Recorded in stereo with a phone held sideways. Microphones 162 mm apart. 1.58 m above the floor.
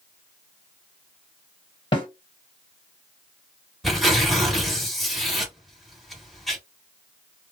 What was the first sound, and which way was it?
A snare drum, 30° left (ahead or behind).